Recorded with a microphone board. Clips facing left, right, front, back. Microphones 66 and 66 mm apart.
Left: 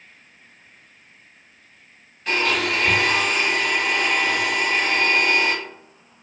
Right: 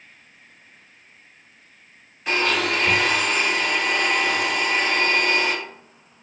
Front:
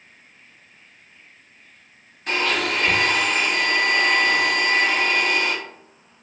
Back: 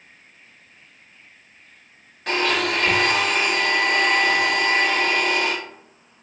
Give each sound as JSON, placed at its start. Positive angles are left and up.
{"t": 2.3, "sound": "a blender", "azimuth_deg": -165, "distance_m": 1.5}